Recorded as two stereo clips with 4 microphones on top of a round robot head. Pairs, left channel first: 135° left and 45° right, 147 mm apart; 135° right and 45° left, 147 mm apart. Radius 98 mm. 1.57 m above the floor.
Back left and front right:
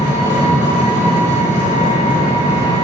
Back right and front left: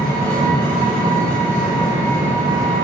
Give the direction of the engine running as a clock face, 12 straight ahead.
11 o'clock.